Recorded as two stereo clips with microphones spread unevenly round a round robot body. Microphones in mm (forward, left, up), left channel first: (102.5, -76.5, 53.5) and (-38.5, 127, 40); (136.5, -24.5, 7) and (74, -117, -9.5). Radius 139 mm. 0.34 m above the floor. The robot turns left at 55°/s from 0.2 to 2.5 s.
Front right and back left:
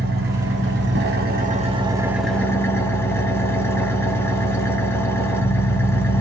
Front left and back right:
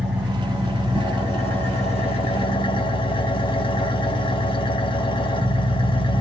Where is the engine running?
150° left, 0.8 m; by 6.2 s 25° left, 0.8 m.